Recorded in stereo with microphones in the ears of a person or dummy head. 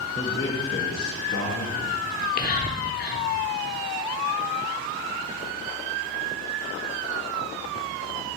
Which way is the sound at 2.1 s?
45° left (ahead or behind).